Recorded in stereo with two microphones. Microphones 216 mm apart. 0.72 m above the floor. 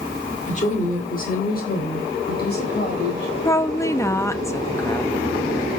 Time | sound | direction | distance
0.5 | a woman speaking | 35° left (ahead or behind) | 2 m
3.5 | a woman speaking | 15° left (ahead or behind) | 0.5 m